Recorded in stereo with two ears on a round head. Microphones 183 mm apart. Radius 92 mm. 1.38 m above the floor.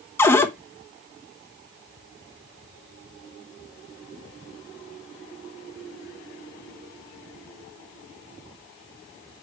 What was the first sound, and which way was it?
A cupboard door, 10° left (ahead or behind).